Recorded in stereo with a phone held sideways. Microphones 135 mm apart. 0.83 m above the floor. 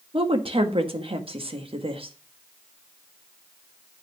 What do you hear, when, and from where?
0.1 s a woman speaking: 40° right (ahead or behind), 1.4 m